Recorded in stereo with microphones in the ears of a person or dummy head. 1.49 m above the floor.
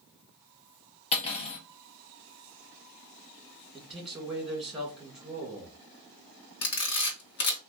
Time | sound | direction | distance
1.1 | cutlery clinking | 30° left (ahead or behind) | 1.0 m
3.7 | a man speaking | centre (ahead or behind) | 1.8 m
6.6 | a camera shutter | 60° left (ahead or behind) | 1.1 m